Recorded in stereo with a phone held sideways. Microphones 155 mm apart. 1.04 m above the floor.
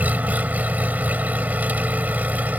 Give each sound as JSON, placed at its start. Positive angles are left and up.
{"t": 0.0, "sound": "an engine running", "side_deg": -10}